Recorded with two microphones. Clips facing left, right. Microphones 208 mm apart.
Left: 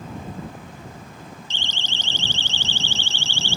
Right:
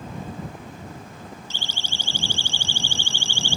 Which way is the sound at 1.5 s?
10° right (ahead or behind).